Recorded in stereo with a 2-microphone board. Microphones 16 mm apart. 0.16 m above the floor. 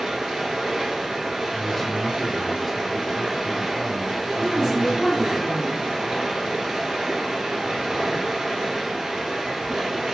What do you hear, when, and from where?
0.0 s running water: 60° right (ahead or behind), 1.4 m
1.5 s a man speaking: 20° left (ahead or behind), 1.0 m
4.4 s a woman speaking: 15° right (ahead or behind), 1.6 m